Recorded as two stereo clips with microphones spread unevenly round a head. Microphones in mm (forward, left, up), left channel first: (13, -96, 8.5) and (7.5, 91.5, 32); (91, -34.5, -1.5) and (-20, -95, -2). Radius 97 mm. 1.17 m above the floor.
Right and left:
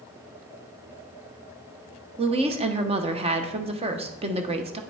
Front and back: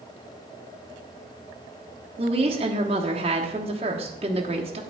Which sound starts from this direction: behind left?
A woman speaking, at 2.2 s.